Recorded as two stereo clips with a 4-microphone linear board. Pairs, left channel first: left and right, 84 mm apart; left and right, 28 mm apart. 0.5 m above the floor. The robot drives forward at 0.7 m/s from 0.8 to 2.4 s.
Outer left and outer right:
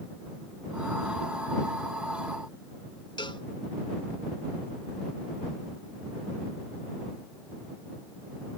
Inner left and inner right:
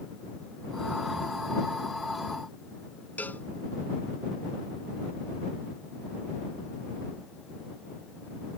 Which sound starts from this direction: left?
A cowbell, at 3.2 s.